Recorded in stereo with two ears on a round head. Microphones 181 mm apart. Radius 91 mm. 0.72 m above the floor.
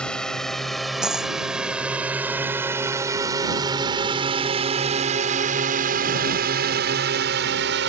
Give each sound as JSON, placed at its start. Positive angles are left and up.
{"t": 0.0, "sound": "a drone", "side_deg": 5}
{"t": 1.0, "sound": "a dropped coin", "side_deg": -5}